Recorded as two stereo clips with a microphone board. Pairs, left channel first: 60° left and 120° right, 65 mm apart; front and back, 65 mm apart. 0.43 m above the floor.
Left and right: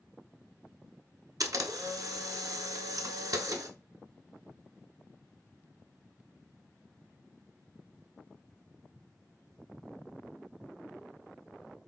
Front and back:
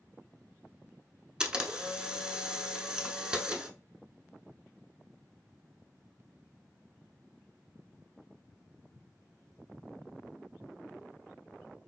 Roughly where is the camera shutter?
Right.